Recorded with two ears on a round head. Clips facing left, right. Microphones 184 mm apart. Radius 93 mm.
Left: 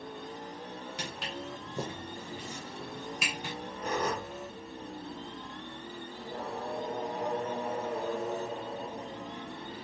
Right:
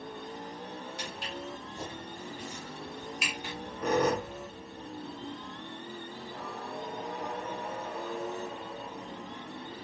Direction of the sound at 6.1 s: 30° left (ahead or behind).